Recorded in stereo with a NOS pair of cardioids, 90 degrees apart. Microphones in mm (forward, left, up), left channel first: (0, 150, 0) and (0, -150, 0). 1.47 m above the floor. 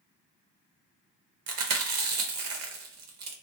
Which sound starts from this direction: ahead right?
Chewing, at 1.5 s.